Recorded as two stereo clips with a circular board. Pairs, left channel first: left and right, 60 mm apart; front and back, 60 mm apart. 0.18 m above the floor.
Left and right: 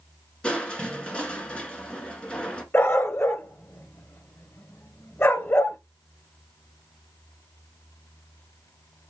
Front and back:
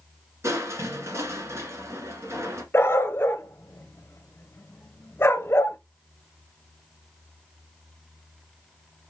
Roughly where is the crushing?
Behind.